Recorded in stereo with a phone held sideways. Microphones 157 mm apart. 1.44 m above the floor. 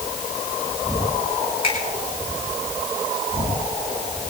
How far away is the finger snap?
About 7 m.